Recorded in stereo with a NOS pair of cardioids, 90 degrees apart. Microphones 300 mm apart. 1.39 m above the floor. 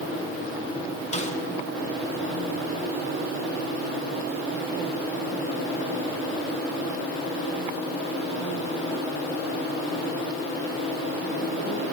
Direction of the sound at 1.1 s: 20° left.